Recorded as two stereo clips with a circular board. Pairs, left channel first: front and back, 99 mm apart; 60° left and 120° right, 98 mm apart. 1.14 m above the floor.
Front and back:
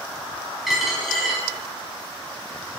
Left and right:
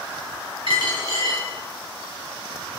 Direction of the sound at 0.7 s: 90° right.